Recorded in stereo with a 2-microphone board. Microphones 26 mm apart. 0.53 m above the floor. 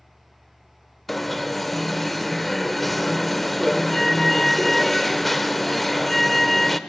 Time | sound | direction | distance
1.1 | an alarm | 5° left (ahead or behind) | 1.0 m